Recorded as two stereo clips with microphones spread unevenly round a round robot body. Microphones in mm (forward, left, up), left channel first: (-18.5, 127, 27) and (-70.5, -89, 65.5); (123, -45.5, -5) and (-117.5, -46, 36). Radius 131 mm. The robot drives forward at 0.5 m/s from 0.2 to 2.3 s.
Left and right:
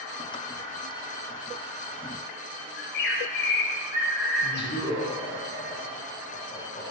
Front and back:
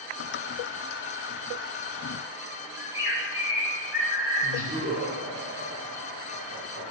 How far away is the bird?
About 1.7 m.